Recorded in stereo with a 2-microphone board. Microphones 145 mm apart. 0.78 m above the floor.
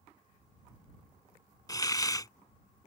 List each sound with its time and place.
1.7 s a hiss: 25° left (ahead or behind)